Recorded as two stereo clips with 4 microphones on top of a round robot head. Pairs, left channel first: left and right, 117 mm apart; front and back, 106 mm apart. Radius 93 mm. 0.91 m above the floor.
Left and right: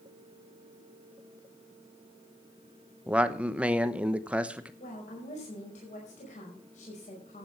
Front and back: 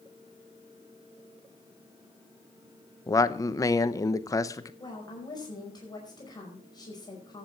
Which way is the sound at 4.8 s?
55° left.